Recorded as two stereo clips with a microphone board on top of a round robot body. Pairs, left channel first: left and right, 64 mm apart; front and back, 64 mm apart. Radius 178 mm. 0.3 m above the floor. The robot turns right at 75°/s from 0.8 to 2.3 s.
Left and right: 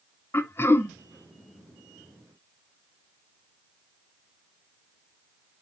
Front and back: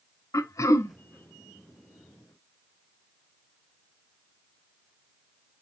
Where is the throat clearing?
40° left, 0.6 m; by 0.9 s 50° left, 0.6 m.